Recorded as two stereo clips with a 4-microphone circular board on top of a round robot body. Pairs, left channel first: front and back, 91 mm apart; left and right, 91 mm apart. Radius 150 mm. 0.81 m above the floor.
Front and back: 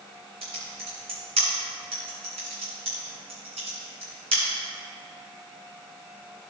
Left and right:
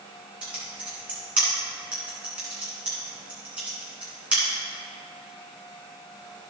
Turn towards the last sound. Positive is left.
turn(degrees=-165)